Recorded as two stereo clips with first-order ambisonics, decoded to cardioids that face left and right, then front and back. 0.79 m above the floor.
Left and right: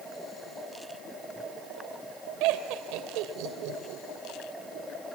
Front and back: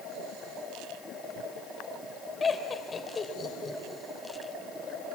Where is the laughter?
75° right, 3 m.